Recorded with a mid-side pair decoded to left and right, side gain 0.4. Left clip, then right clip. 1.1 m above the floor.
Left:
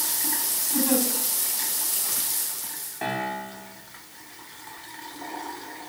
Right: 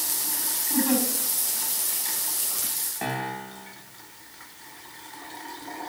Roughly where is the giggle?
Ahead right.